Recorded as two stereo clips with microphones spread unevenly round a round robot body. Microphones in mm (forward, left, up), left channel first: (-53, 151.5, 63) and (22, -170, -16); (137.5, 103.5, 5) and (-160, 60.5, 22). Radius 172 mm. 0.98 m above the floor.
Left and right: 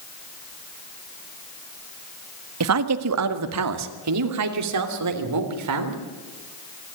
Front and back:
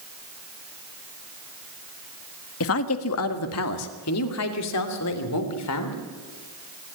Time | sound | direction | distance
2.6 | a woman speaking | 40° right | 1.3 m